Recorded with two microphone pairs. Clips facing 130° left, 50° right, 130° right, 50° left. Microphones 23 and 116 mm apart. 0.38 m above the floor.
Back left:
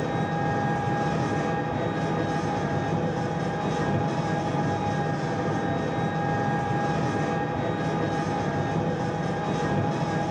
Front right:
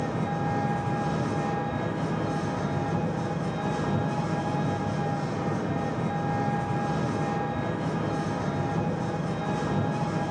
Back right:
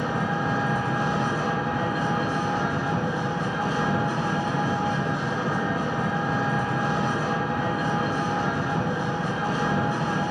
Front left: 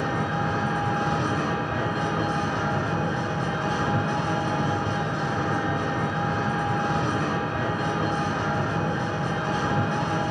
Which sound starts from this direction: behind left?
An engine running, at 0.0 s.